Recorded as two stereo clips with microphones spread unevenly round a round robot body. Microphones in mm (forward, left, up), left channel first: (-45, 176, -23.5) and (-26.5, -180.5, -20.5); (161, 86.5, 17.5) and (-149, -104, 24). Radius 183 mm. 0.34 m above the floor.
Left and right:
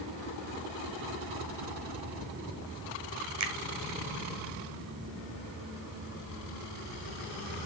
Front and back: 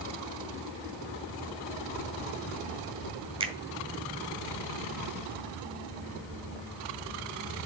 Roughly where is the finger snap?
Right.